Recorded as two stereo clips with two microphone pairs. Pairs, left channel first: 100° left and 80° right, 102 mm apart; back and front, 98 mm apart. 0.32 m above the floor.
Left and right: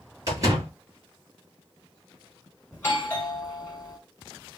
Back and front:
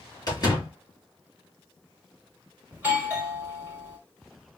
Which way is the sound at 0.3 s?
135° right.